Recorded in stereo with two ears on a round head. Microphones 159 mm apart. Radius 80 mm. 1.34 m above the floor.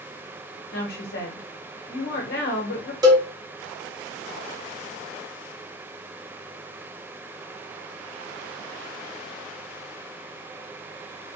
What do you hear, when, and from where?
0.7 s a woman speaking: 60° left (ahead or behind), 0.9 m
3.0 s a cowbell: 20° right (ahead or behind), 0.7 m